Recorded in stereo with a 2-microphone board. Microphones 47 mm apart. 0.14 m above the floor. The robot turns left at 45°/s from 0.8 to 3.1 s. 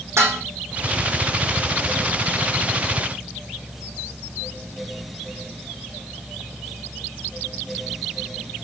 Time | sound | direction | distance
0.2 | dishes clattering | 65° right (ahead or behind) | 4.5 m